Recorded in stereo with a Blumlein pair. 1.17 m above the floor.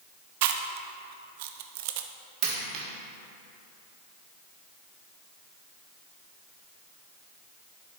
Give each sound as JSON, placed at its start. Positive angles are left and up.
{"t": 0.4, "sound": "chewing", "azimuth_deg": -50, "distance_m": 0.5}
{"t": 2.4, "sound": "a dropped coin", "azimuth_deg": -40, "distance_m": 1.5}